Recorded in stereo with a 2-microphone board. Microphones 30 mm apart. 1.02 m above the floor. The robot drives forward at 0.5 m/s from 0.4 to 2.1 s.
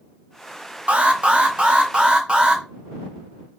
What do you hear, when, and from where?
0.9 s an alarm: 40° right (ahead or behind), 1.7 m; by 2.6 s 30° right (ahead or behind), 2 m